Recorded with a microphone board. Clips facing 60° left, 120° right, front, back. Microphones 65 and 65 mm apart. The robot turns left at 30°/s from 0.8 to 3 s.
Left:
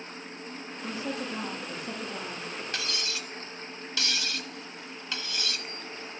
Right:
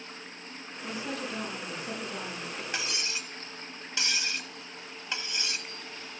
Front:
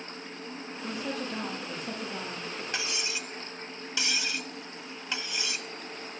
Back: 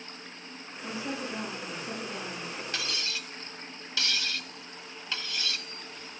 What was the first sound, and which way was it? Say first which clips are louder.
A woman speaking: left 1 dB, even; 5° left.